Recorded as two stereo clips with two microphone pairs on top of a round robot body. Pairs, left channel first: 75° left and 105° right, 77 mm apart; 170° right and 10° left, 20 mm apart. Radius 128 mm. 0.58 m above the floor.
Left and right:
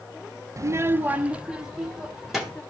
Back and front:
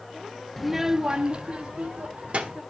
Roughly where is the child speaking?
Right.